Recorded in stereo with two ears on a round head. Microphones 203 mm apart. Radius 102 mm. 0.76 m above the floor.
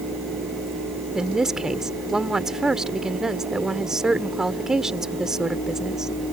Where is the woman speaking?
5° right (ahead or behind).